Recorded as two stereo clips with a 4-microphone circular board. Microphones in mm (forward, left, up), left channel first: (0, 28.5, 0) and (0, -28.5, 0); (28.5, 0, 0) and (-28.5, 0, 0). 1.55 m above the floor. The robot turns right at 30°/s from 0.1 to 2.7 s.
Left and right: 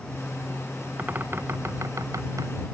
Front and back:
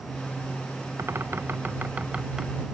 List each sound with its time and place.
1.0 s a bird: 145° right; by 2.6 s 100° right